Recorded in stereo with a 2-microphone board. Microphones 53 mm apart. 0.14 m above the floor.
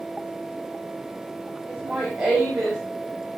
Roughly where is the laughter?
Centre.